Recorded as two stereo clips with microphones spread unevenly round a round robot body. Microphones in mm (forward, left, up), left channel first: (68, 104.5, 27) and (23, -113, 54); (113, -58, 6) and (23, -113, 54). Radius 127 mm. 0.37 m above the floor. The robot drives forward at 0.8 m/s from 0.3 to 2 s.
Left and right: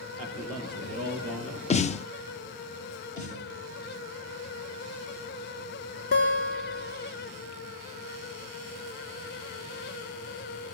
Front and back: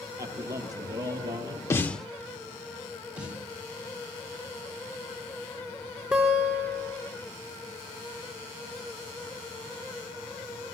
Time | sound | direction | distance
0.2 | a man speaking | 165° left | 8 m
1.7 | a snare drum | 35° left | 0.6 m
3.2 | a snare drum | 125° left | 2.5 m
6.1 | a guitar | 135° left | 5.5 m